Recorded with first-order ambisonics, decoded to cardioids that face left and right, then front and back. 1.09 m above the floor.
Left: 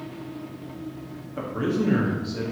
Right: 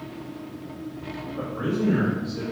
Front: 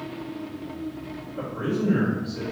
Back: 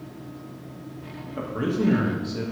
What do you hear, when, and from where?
1.4 s a man speaking: 145° left, 1.8 m